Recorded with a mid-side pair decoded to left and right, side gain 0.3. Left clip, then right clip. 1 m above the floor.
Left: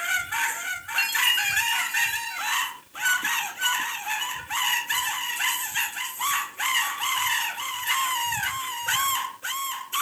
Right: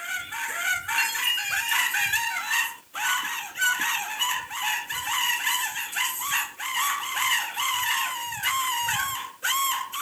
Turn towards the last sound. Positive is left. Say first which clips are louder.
# left 8 dB
turn(degrees=20)